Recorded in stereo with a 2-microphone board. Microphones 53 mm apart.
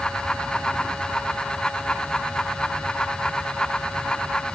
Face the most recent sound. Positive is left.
No sound to turn to.